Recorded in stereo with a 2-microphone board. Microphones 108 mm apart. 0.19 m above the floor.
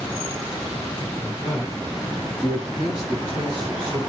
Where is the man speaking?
20° left (ahead or behind), 1.8 m; by 4.0 s 40° left (ahead or behind), 2.0 m.